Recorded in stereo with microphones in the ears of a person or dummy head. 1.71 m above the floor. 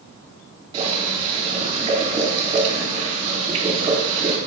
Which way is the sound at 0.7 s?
30° right (ahead or behind).